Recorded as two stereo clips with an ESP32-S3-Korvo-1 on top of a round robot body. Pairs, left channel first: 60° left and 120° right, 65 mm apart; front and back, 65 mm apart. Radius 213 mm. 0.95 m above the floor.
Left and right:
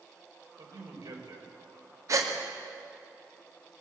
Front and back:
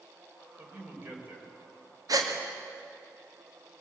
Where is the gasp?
155° right, 2.5 m.